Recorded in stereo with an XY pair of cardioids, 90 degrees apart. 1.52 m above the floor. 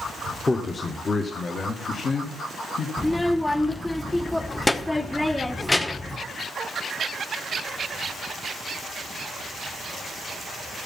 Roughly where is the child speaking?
Ahead.